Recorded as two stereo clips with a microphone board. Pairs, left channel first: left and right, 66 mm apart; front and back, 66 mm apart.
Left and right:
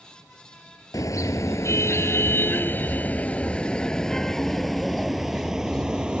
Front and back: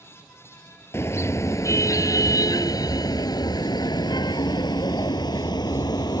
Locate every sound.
0.9 s a car horn: 55° left; by 6.2 s 10° right